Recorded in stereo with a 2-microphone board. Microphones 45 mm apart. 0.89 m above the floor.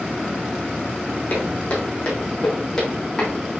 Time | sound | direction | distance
1.3 | footsteps | 35° left (ahead or behind) | 3 m